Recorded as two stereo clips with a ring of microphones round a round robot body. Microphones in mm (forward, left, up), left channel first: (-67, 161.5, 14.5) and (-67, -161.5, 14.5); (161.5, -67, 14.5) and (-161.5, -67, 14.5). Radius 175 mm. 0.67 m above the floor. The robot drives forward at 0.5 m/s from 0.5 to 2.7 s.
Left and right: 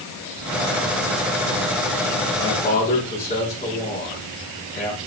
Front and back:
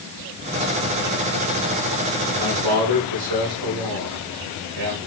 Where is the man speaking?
160° left, 6 m.